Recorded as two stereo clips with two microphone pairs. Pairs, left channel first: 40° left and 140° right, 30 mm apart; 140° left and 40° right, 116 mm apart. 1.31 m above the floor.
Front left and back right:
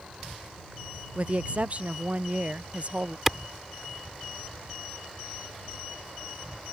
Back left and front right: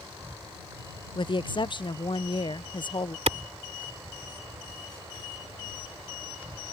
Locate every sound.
0.0 s an insect: 100° right
1.1 s a woman speaking: straight behind
3.3 s a clap: 55° right